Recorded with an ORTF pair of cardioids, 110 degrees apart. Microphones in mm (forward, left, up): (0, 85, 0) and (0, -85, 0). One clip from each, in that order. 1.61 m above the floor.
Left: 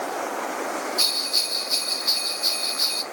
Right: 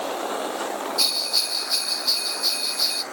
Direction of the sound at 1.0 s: Straight ahead.